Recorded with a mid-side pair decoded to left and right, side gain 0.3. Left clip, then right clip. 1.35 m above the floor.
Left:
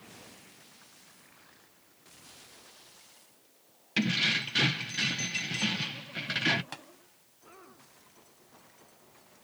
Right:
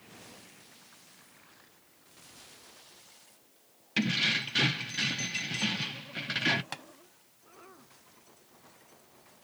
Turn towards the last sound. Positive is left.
turn(degrees=-40)